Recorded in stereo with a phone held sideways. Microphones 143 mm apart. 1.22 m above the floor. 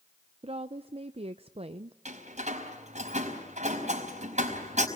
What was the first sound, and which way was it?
A woman speaking, 45° right (ahead or behind).